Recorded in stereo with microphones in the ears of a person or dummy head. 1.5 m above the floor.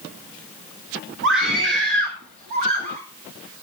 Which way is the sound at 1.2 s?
60° right (ahead or behind).